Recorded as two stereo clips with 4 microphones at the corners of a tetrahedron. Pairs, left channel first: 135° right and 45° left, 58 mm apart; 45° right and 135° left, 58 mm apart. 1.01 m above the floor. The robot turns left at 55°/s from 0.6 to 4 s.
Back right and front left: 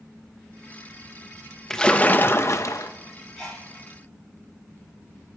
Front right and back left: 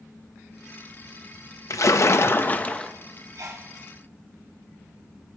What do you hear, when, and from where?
1.7 s a splash: 55° right, 0.8 m; by 2.9 s 120° right, 0.8 m
3.4 s a sneeze: 155° left, 6 m; by 3.7 s 135° left, 6 m